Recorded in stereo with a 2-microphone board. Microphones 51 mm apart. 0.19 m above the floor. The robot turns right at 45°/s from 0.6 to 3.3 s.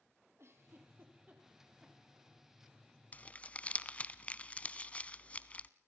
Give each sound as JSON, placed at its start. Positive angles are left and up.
{"t": 0.4, "sound": "a giggle", "side_deg": -60, "distance_m": 4.5}
{"t": 3.1, "sound": "crumpling", "side_deg": 30, "distance_m": 0.9}